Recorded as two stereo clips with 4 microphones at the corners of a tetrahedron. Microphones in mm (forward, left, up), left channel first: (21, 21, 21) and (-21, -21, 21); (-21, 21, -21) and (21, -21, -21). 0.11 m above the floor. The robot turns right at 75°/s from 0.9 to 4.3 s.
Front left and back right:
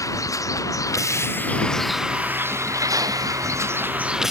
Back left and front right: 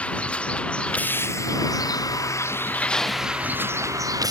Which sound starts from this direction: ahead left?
A vehicle, at 0.0 s.